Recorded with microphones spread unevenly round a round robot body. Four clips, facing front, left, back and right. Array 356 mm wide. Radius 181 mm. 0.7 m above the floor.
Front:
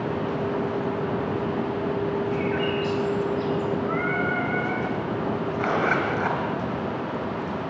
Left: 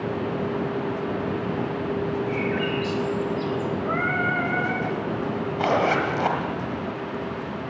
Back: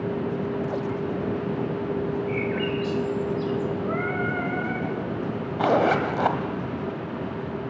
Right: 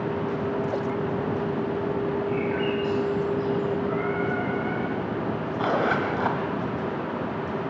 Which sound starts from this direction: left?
Singing, at 3.9 s.